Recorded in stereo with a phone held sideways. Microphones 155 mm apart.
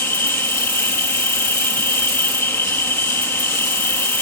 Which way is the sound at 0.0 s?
15° left (ahead or behind).